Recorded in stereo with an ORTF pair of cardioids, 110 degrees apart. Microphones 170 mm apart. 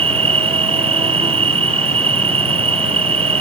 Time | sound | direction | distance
0.0 | an insect | 35° right | ?